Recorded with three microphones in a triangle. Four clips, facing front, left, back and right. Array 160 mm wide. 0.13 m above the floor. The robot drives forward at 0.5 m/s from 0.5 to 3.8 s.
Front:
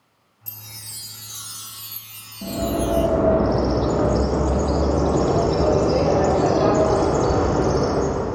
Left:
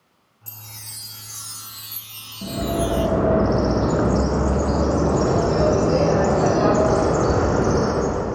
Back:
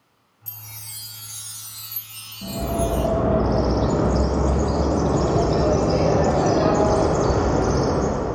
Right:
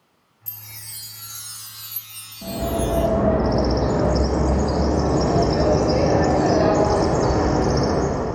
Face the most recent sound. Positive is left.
turn(degrees=90)